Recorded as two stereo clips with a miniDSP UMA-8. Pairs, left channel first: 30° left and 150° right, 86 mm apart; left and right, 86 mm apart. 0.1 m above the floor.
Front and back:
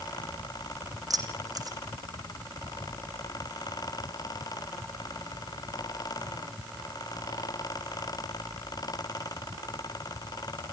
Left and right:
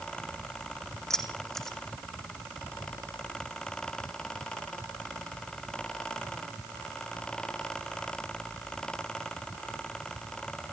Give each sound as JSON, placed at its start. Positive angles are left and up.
{"t": 1.1, "sound": "keys jangling", "azimuth_deg": 175, "distance_m": 3.5}